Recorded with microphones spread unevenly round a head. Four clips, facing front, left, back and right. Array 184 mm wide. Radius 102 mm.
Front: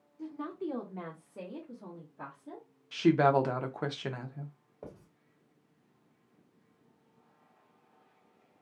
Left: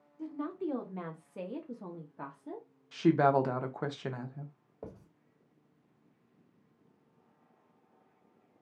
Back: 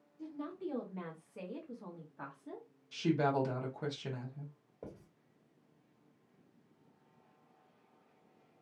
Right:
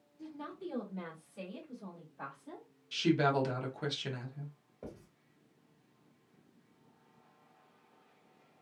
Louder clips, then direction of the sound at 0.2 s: Left 7 dB, front 4 dB; 35° left.